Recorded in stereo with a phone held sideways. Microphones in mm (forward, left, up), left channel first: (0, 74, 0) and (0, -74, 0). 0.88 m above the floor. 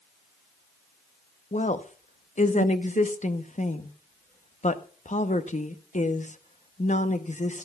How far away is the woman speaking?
About 0.8 m.